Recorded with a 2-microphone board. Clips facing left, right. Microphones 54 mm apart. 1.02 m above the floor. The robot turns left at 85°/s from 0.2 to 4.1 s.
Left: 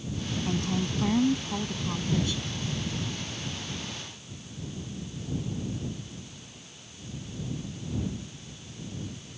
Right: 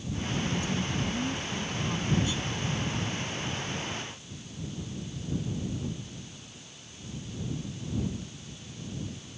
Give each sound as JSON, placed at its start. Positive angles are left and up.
{"t": 0.4, "sound": "a woman speaking", "azimuth_deg": 140}